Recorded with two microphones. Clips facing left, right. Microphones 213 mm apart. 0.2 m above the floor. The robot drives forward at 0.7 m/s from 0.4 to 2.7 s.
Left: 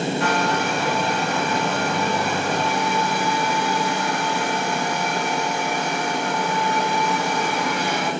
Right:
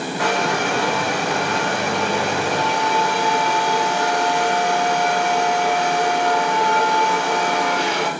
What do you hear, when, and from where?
0.2 s a hair dryer: 85° right, 4.5 m; by 8.1 s 75° right (ahead or behind), 5 m